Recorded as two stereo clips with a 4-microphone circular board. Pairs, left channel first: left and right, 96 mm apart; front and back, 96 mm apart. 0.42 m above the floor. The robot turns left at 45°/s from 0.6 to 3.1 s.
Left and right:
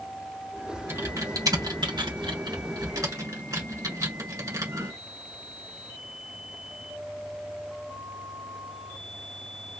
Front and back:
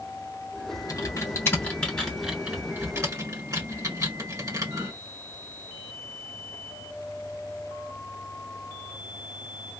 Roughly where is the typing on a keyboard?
Ahead right.